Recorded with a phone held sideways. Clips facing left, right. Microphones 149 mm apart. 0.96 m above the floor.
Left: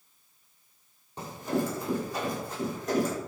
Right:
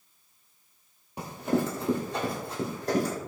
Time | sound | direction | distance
1.2 | running footsteps | 15° right (ahead or behind) | 1.5 m